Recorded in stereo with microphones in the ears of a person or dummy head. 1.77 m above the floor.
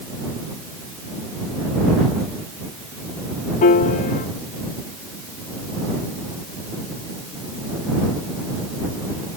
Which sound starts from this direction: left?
A piano, at 3.6 s.